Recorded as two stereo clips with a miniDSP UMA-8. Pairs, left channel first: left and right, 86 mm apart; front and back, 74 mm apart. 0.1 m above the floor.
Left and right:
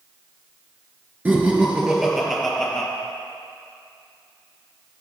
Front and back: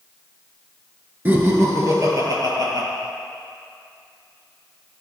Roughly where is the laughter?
Behind right.